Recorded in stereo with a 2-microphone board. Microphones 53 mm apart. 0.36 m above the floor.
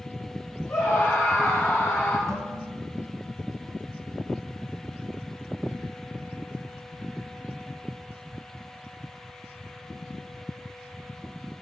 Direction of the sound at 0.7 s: 60° left (ahead or behind).